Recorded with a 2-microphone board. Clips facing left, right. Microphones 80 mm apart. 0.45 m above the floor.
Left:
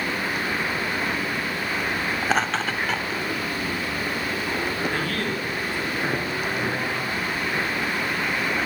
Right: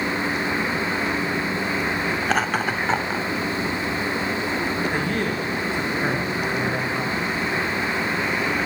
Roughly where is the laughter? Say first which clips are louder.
Even; centre.